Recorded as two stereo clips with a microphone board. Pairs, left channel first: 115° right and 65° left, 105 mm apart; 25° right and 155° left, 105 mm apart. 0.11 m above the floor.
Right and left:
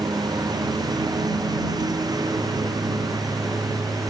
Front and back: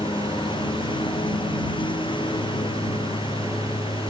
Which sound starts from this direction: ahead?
A lawn mower, at 0.0 s.